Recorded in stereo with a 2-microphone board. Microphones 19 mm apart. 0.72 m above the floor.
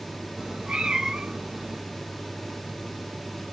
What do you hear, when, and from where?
0.4 s a cat meowing: 65° right (ahead or behind), 1.9 m